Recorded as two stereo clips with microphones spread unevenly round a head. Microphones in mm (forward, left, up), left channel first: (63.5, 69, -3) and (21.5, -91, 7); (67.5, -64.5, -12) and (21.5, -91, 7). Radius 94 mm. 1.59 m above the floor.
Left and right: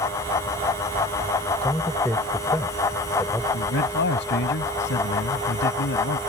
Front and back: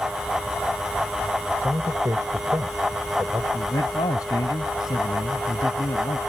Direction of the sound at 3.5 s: 65° left.